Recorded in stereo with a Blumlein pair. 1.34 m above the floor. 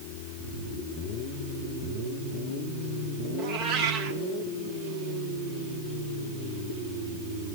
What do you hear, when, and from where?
3.4 s a cat meowing: 40° right, 1.7 m